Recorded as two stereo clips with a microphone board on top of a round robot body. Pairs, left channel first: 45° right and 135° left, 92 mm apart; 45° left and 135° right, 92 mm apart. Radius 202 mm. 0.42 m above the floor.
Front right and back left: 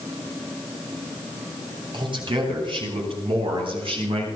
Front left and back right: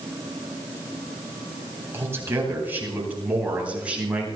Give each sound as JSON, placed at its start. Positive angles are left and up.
{"t": 1.9, "sound": "a man speaking", "azimuth_deg": 165, "distance_m": 9.0}